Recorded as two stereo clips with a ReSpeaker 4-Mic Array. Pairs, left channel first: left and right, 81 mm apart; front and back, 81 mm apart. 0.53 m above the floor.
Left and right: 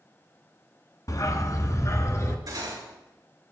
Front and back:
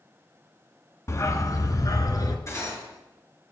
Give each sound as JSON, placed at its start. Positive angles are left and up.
{"t": 1.1, "sound": "a dog barking", "azimuth_deg": 50, "distance_m": 1.0}
{"t": 2.5, "sound": "cutlery clinking", "azimuth_deg": -50, "distance_m": 5.5}